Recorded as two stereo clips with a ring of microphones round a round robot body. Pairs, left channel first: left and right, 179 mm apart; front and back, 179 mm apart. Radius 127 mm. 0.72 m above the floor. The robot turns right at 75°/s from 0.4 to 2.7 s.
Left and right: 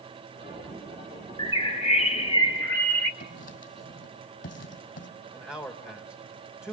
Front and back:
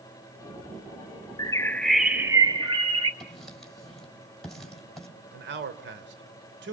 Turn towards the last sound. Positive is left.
turn(degrees=170)